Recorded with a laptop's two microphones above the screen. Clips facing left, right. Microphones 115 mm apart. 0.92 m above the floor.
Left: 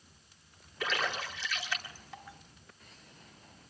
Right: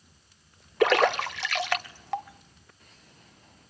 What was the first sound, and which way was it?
A splash, 80° right.